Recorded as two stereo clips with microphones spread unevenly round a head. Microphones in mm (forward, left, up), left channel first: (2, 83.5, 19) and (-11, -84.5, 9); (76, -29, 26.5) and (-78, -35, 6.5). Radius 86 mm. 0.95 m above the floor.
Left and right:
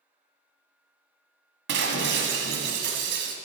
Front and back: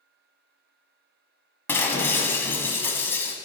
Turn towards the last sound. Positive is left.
turn(degrees=-70)